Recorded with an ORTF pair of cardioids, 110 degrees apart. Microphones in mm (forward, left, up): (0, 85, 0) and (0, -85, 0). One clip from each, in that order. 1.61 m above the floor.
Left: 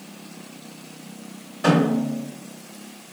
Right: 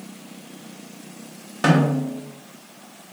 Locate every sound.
1.6 s a snare drum: 55° right, 1.4 m